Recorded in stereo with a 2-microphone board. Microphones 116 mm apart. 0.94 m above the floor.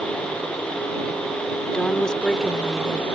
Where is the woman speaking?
10° left (ahead or behind); by 3.0 s centre (ahead or behind).